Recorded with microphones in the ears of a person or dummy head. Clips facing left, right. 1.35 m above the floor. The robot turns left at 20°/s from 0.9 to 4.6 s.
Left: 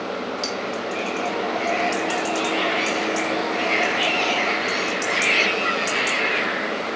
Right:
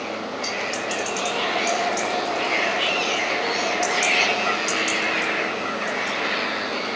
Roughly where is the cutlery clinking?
Left.